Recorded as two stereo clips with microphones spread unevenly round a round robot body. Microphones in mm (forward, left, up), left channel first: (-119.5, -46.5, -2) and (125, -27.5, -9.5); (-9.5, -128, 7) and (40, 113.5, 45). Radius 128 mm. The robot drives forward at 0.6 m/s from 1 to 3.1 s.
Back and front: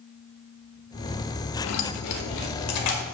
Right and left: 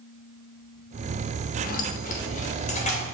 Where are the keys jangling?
155° right, 1.0 m; by 3.1 s 165° right, 1.8 m.